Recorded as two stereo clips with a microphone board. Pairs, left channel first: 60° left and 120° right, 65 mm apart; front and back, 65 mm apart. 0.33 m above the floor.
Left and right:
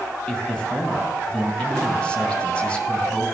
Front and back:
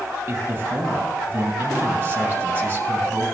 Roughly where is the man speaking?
Behind left.